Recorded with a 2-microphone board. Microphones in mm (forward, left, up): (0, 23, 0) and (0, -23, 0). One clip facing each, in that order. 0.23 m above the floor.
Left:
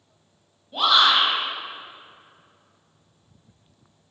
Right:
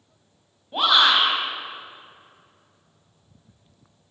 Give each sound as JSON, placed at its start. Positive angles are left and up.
{"t": 0.7, "sound": "a shout", "side_deg": -30, "distance_m": 1.4}